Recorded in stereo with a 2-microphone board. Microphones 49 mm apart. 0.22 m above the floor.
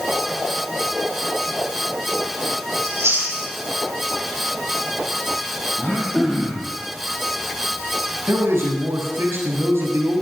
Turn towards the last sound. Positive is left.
turn(degrees=-65)  # may be behind; listen again after turning